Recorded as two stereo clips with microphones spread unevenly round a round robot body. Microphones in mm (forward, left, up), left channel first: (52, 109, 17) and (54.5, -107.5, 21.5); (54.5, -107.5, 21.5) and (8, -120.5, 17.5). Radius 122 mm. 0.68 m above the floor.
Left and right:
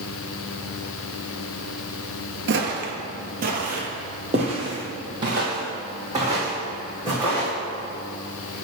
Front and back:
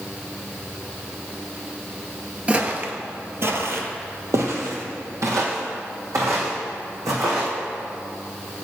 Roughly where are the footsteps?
Right.